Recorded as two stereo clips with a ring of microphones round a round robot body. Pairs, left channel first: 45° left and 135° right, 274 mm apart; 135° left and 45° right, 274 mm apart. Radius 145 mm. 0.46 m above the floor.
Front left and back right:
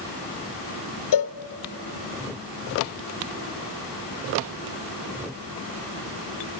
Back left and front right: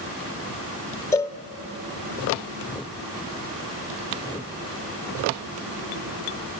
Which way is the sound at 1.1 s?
55° left.